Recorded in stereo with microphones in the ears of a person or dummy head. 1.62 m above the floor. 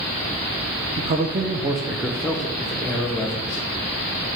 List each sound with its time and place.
1.0 s a man speaking: 30° right (ahead or behind), 0.6 m; by 3.6 s 10° left (ahead or behind), 1.7 m